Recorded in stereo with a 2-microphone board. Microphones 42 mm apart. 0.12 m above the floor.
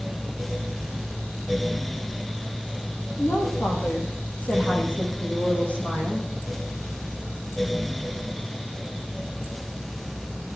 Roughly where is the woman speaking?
Left.